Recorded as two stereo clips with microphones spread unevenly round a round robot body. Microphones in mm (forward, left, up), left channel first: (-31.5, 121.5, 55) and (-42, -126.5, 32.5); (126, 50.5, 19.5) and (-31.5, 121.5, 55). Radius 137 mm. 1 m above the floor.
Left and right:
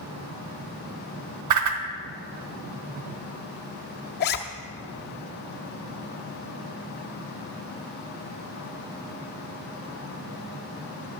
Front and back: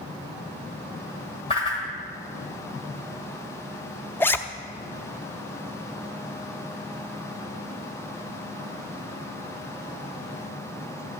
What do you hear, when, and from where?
1.5 s a whoosh: 100° right, 1.1 m
4.2 s a zipper: 65° left, 0.6 m